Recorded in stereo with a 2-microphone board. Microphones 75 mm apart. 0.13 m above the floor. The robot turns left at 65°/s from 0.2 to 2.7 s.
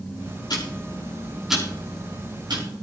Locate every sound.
0.5 s ticking: 60° left (ahead or behind), 6.5 m; by 2.6 s 75° right (ahead or behind), 6.5 m